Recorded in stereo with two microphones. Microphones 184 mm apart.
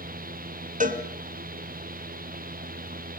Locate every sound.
0.8 s a cowbell: 45° right (ahead or behind), 2 m